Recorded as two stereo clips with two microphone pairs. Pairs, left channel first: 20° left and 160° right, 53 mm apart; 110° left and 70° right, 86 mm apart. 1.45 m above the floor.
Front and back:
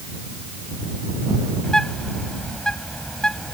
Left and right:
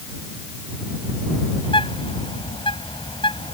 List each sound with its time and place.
1.6 s a bird: 100° left